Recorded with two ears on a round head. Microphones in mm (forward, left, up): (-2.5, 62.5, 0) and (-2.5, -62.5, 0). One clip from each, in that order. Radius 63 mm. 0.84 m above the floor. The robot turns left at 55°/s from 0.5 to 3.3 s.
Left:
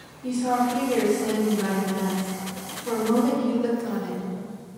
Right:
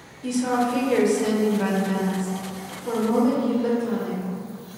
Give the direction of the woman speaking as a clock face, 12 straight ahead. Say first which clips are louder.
Even; 2 o'clock.